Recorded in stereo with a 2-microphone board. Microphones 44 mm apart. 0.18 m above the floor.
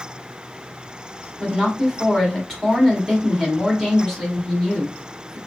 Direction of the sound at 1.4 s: 10° left (ahead or behind).